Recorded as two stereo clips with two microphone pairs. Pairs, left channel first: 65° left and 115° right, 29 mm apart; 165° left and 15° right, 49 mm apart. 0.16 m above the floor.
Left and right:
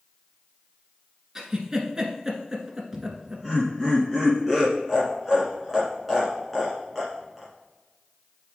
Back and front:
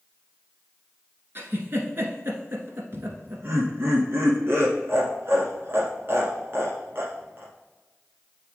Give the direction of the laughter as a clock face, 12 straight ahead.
1 o'clock.